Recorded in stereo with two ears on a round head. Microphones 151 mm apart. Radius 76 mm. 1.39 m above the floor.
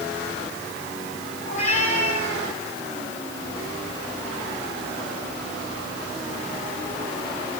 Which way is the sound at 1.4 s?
50° left (ahead or behind).